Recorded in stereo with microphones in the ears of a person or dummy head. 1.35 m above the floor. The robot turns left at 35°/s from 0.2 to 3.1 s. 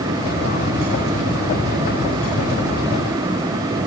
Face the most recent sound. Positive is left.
No sound to turn to.